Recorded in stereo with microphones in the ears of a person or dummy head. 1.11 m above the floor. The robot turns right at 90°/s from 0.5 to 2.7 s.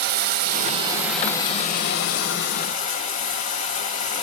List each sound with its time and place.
0.0 s running water: 55° right, 0.8 m; by 4.2 s 140° left, 0.8 m